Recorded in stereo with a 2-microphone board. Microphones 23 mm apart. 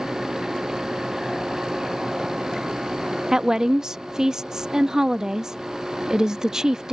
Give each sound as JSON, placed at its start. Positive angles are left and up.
{"t": 3.3, "sound": "a woman speaking", "side_deg": -25}